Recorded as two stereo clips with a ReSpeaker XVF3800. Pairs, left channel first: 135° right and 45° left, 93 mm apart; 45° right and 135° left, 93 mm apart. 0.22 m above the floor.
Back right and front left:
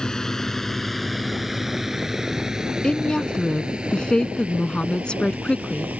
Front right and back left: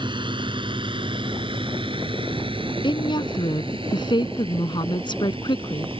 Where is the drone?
145° left; by 6.0 s 120° left.